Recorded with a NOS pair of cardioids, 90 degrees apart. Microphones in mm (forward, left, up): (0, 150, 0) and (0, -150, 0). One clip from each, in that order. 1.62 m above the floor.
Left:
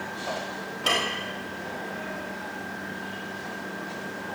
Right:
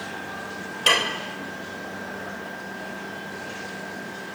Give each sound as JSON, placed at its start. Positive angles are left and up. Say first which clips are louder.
{"t": 0.9, "sound": "dishes clattering", "louder": "right 5 dB", "azimuth_deg": -35, "distance_m": 4.0}